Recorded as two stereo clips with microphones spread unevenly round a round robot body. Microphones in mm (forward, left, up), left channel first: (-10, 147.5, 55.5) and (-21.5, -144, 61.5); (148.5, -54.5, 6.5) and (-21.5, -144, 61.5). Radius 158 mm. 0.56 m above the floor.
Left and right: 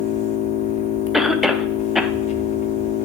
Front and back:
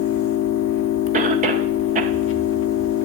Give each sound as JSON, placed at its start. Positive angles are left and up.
{"t": 0.0, "sound": "an engine running", "azimuth_deg": 20, "distance_m": 0.7}
{"t": 1.1, "sound": "a cough", "azimuth_deg": 175, "distance_m": 0.6}